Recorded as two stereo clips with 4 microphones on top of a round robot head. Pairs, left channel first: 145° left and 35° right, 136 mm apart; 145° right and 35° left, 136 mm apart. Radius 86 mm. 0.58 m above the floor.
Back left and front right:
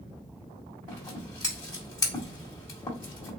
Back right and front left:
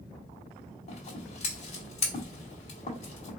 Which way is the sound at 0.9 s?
160° right.